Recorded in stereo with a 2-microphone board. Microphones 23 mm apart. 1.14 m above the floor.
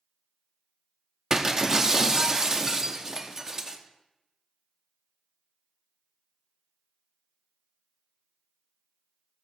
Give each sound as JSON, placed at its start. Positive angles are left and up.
{"t": 1.3, "sound": "breaking glass", "side_deg": -25, "distance_m": 0.9}